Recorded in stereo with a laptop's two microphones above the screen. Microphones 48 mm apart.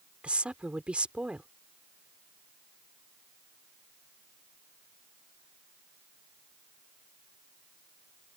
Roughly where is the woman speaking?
Right.